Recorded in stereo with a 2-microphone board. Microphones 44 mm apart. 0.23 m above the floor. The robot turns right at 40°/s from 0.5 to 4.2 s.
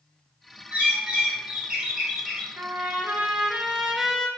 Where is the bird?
60° right, 1.7 m; by 2.5 s 10° left, 1.7 m.